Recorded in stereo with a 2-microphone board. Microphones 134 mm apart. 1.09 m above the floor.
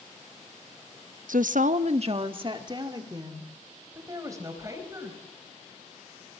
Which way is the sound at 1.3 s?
80° right.